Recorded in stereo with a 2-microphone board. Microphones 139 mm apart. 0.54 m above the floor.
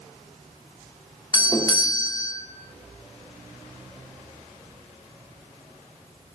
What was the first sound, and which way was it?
A doorbell, 30° left (ahead or behind).